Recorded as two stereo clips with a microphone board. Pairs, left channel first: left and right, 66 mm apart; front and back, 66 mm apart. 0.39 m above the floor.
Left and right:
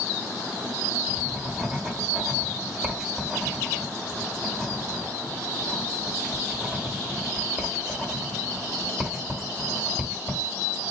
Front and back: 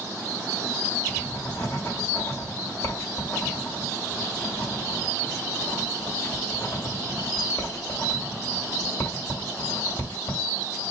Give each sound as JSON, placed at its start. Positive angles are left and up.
{"t": 1.1, "sound": "writing", "azimuth_deg": -15, "distance_m": 1.7}